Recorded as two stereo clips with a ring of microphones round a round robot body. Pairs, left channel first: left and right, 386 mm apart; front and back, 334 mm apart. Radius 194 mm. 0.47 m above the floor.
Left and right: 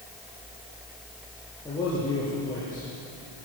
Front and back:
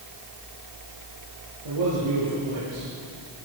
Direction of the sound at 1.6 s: 170° left.